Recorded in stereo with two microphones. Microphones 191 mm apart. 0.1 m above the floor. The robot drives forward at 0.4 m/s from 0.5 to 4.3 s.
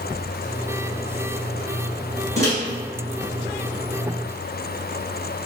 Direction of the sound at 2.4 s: 15° left (ahead or behind).